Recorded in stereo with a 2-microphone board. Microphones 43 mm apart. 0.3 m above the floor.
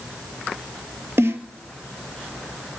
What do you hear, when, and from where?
1.2 s a snare drum: 80° right, 1.2 m